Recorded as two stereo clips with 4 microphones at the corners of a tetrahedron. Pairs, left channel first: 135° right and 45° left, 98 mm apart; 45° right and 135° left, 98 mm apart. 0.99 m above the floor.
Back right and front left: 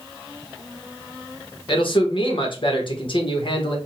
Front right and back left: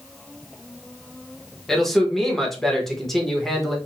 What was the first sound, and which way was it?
A man speaking, 130° right.